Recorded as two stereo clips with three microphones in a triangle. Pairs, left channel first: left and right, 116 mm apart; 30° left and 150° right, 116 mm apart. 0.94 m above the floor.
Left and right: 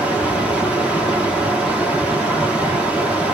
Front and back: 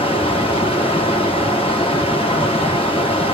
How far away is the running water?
About 1.4 m.